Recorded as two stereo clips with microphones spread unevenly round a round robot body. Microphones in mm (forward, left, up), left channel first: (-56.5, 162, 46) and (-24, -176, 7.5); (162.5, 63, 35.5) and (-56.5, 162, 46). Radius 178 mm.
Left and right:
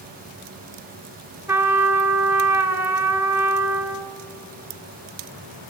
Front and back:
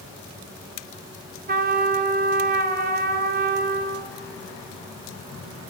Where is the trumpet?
160° right, 1.0 m.